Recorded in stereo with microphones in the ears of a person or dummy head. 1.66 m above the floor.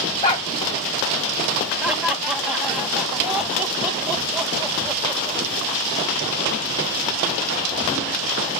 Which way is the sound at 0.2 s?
20° left (ahead or behind).